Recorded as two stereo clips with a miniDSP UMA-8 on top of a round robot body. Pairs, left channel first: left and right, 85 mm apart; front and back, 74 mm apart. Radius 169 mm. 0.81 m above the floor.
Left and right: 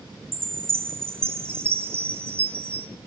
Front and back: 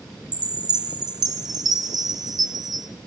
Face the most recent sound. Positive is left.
turn(degrees=-155)